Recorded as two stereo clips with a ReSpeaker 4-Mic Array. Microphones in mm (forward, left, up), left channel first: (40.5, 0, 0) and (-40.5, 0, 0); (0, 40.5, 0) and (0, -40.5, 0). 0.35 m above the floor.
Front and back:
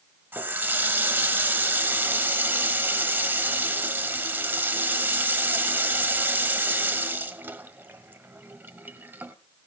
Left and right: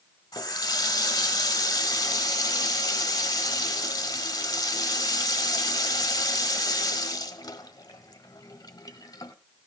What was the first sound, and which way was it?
A running tap, 120° left.